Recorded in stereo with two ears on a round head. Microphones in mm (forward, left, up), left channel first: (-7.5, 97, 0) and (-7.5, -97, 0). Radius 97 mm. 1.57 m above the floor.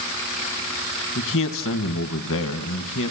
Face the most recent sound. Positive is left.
turn(degrees=65)  # may be behind; listen again after turning